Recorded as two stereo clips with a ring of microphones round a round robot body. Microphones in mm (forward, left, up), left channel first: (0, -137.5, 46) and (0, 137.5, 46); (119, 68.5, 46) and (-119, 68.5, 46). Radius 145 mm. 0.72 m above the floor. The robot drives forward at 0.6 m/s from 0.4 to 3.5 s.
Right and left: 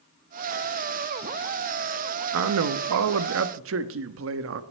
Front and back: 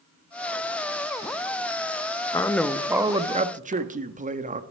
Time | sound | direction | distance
2.3 | a man speaking | 75° left | 0.9 m